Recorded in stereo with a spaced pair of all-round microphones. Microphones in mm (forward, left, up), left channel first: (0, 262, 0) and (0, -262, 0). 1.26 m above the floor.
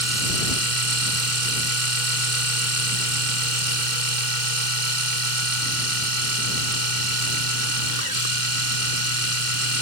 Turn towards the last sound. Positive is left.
turn(degrees=-75)  # may be behind; listen again after turning